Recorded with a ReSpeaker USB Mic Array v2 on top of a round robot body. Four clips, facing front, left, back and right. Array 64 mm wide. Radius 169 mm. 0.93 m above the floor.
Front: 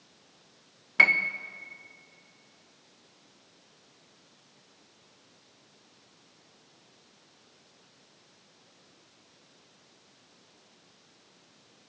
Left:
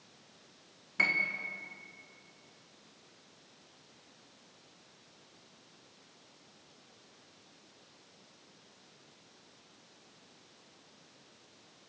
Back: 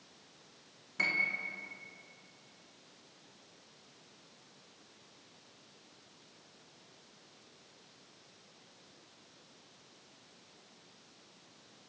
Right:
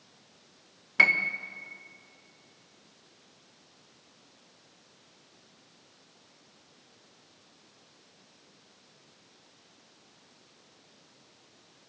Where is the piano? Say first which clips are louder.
Right 7 dB, front 10 dB; 30° right, 1.4 m.